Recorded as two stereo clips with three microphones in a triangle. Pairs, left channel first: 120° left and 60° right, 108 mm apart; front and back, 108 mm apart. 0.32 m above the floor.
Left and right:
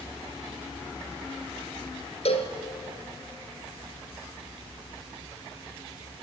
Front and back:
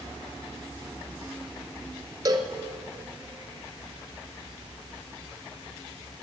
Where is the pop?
I don't hear a pop.